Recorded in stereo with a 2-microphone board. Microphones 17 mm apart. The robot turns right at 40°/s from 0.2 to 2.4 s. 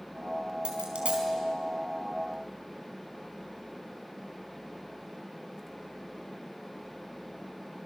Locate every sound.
0.7 s a dropped coin: 60° right (ahead or behind), 4.5 m; by 1.3 s 75° right (ahead or behind), 4.5 m